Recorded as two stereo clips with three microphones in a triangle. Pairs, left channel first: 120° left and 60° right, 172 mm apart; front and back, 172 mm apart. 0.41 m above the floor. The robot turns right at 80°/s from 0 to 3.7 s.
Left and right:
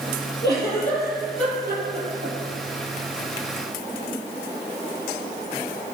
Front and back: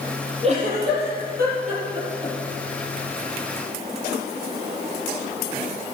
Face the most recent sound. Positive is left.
turn(degrees=30)